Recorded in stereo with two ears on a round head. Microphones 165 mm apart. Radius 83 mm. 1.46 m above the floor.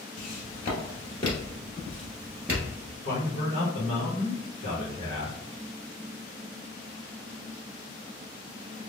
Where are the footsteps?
45° left (ahead or behind), 2.0 m; by 2.7 s 15° right (ahead or behind), 1.5 m.